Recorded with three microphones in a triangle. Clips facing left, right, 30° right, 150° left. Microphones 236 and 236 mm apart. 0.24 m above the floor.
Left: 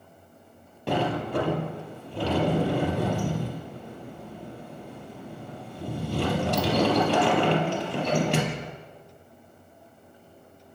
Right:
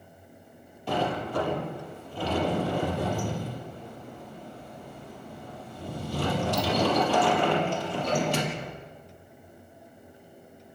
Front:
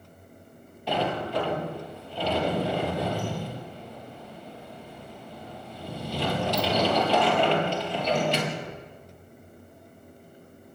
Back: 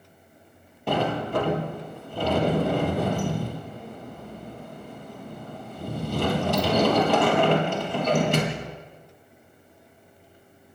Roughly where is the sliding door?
Left.